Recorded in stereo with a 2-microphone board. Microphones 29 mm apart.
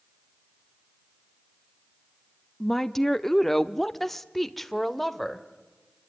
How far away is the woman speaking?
About 0.7 m.